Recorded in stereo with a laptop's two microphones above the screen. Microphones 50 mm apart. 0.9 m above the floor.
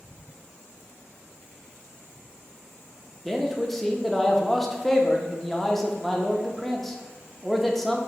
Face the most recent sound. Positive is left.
turn(degrees=5)  # may be behind; listen again after turning